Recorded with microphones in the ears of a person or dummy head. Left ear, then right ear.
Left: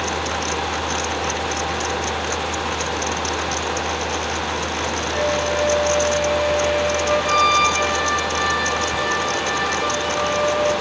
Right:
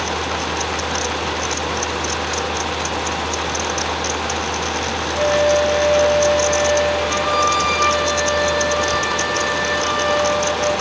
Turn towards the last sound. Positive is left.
turn(degrees=-20)  # may be behind; listen again after turning